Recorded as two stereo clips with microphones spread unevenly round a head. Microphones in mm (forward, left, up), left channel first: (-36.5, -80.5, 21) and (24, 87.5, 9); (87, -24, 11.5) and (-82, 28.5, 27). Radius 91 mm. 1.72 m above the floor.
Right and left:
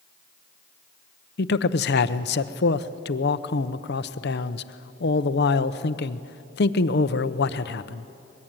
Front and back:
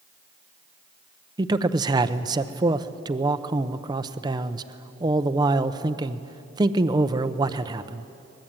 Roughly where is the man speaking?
Behind right.